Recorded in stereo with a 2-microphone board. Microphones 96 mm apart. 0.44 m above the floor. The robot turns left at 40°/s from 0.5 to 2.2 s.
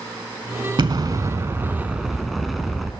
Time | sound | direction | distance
0.8 | an explosion | 125° right | 0.6 m